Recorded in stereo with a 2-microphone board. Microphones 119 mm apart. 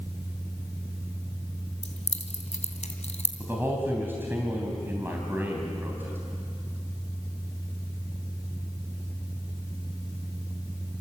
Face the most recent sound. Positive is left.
turn(degrees=-20)  # may be behind; listen again after turning